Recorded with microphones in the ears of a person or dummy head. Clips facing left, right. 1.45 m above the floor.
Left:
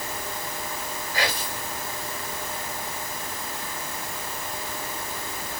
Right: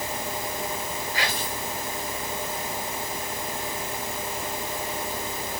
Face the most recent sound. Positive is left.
turn(degrees=40)  # may be behind; listen again after turning